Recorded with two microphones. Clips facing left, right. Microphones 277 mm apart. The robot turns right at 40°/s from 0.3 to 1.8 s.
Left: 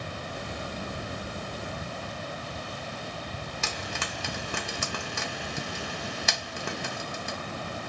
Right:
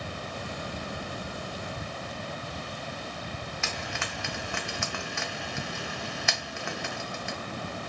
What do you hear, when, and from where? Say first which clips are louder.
3.6 s frying: left 1 dB; 40° left (ahead or behind), 0.6 m